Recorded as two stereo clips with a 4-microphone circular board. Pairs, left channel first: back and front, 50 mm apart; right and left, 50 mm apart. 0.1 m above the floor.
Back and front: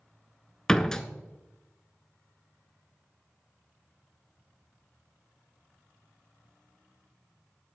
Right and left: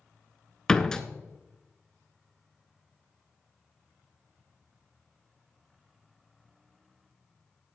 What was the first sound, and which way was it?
A door slam, 130° right.